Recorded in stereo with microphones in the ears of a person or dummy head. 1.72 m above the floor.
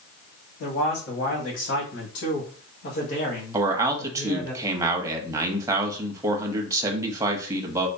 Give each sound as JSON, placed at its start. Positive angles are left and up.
{"t": 0.6, "sound": "a man speaking", "side_deg": 70, "distance_m": 2.0}
{"t": 3.5, "sound": "a man speaking", "side_deg": -25, "distance_m": 0.9}